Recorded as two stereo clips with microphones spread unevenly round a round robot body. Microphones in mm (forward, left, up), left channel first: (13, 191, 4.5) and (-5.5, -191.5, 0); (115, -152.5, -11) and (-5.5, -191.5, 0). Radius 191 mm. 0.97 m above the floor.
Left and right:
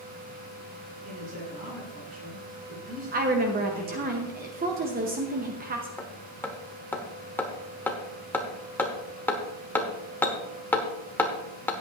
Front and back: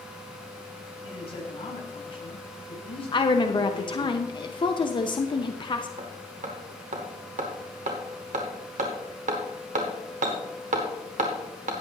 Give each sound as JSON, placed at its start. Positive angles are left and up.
{"t": 1.0, "sound": "a man speaking", "azimuth_deg": -25, "distance_m": 6.5}
{"t": 3.1, "sound": "a woman speaking", "azimuth_deg": -30, "distance_m": 0.9}
{"t": 6.0, "sound": "hammering", "azimuth_deg": 170, "distance_m": 1.1}